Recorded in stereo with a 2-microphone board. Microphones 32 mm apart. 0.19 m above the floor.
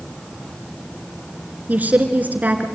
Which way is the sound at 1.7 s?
55° right (ahead or behind).